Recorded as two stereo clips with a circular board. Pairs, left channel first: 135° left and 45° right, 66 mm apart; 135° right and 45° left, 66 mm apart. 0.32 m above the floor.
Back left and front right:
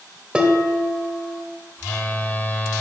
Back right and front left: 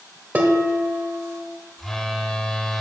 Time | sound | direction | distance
0.3 | dishes clattering | 15° left | 0.8 m
1.8 | a phone buzzing | 150° left | 0.6 m